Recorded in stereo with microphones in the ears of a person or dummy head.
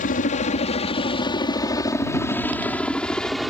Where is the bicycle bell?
No bicycle bell in this recording.